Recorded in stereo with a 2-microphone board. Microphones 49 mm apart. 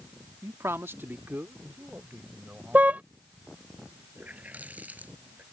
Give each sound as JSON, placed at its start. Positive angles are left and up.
{"t": 0.4, "sound": "a man speaking", "side_deg": -70}
{"t": 2.7, "sound": "a car horn", "side_deg": -35}
{"t": 4.2, "sound": "a running tap", "side_deg": -30}